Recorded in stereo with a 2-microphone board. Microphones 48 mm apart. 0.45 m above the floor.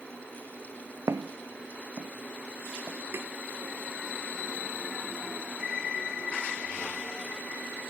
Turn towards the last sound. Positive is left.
turn(degrees=-50)  # may be behind; listen again after turning